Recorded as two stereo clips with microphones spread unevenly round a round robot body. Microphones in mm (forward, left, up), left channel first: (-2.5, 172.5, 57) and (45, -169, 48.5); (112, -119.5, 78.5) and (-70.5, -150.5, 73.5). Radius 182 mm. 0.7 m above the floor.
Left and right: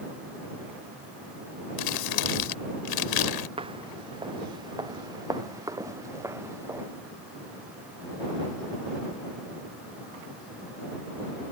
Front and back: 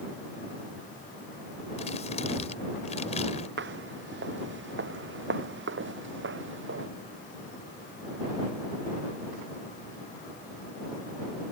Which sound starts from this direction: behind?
Footsteps, at 3.6 s.